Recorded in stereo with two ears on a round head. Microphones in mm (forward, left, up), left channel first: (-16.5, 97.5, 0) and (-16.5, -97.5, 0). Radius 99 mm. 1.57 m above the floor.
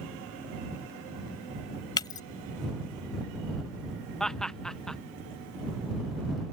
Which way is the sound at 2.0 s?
20° left (ahead or behind).